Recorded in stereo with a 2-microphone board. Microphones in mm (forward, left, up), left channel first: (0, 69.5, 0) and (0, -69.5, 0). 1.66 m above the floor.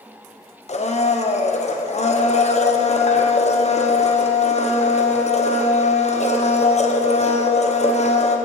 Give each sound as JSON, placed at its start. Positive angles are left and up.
{"t": 0.7, "sound": "a blender", "side_deg": 50, "distance_m": 0.9}